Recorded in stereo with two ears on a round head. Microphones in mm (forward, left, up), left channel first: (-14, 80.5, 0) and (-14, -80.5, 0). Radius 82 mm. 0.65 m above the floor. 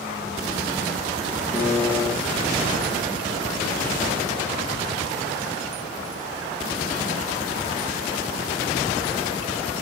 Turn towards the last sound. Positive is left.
turn(degrees=15)  # may be behind; listen again after turning